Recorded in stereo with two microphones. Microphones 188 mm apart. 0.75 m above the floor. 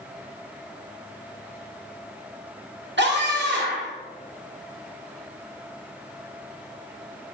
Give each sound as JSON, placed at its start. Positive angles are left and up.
{"t": 3.0, "sound": "a scream", "side_deg": -70, "distance_m": 2.0}